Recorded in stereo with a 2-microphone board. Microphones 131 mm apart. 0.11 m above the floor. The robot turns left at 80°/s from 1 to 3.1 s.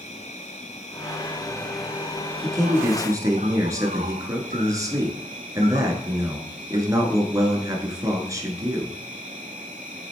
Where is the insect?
65° left, 0.9 m; by 10.1 s 105° right, 0.9 m.